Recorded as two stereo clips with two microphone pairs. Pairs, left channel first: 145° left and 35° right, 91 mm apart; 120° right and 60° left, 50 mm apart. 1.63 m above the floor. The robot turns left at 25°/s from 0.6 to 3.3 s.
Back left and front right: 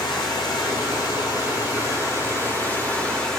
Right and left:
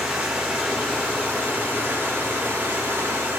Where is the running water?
130° left, 1.9 m; by 3.4 s 65° left, 1.9 m.